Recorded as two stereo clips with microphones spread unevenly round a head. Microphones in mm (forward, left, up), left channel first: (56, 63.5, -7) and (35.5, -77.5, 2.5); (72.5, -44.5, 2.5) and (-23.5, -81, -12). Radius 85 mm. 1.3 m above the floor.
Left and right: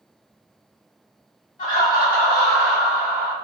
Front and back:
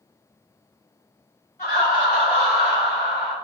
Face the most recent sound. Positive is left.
turn(degrees=150)